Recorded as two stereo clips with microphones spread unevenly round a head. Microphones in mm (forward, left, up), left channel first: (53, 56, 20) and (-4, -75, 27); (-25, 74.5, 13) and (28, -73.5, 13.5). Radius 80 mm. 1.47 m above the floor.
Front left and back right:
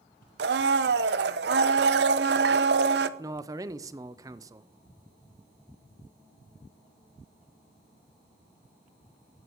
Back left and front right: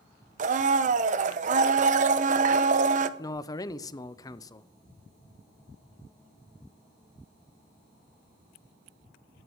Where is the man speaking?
175° left, 0.7 m.